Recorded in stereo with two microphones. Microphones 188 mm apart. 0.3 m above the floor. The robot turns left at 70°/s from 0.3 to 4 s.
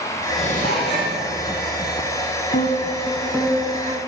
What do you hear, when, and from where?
0.4 s dishes clattering: 150° left, 5.5 m; by 1.2 s 95° left, 5.5 m
2.5 s a piano: 55° left, 1.3 m; by 4.0 s 45° right, 1.3 m